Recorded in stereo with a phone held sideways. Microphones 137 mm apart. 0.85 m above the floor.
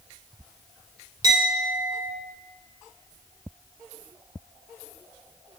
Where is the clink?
30° right (ahead or behind), 1.9 m.